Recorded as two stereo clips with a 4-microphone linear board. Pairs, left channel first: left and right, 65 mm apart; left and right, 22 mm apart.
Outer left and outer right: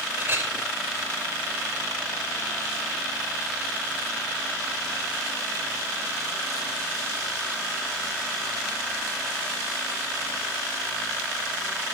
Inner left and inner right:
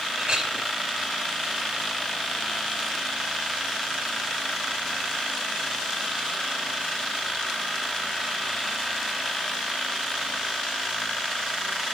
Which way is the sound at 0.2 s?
35° right (ahead or behind).